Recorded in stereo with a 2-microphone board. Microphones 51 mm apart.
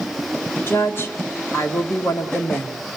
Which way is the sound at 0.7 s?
50° left (ahead or behind).